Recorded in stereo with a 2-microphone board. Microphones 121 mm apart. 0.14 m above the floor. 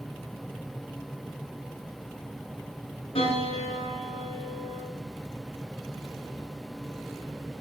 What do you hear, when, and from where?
3.1 s a piano: 60° left (ahead or behind), 9 m